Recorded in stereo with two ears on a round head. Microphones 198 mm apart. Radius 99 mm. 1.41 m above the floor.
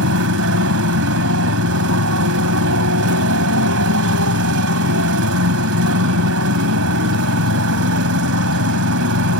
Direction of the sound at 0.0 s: 70° right (ahead or behind).